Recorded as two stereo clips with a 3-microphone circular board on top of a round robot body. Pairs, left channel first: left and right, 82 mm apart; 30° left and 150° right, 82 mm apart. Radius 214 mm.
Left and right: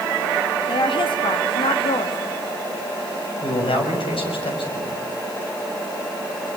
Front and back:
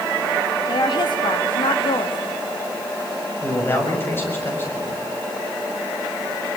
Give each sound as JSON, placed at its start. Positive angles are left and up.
{"t": 0.7, "sound": "a woman speaking", "azimuth_deg": 65, "distance_m": 2.5}
{"t": 3.4, "sound": "a man speaking", "azimuth_deg": 95, "distance_m": 6.5}